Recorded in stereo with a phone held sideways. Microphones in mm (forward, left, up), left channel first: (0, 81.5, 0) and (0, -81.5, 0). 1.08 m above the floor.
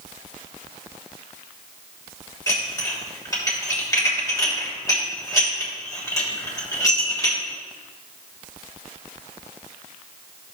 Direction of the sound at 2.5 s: 20° left (ahead or behind).